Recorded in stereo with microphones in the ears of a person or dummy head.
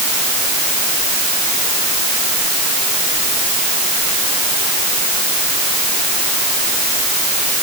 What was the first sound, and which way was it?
Only background noise.